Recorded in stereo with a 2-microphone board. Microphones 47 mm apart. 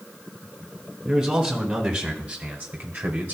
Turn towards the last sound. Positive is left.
turn(degrees=-30)  # may be behind; listen again after turning